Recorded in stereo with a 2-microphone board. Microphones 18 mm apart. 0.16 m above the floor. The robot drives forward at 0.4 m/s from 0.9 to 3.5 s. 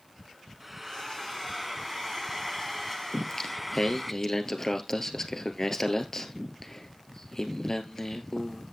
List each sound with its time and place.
0.6 s frying: 5° right (ahead or behind), 1.1 m
3.1 s singing: 25° left (ahead or behind), 1.4 m